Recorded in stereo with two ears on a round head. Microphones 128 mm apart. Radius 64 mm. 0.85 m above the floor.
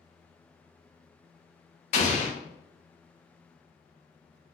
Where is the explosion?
50° left (ahead or behind), 0.6 m.